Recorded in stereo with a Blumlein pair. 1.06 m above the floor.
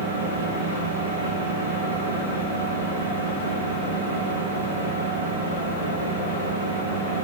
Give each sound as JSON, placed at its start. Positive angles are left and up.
{"t": 0.0, "sound": "a fan", "azimuth_deg": -70, "distance_m": 1.2}